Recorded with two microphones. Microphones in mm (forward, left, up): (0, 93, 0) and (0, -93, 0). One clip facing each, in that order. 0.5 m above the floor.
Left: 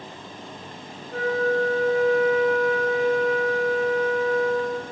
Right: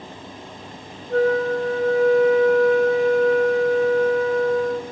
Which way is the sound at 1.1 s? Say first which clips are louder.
Right 4 dB; 65° right (ahead or behind).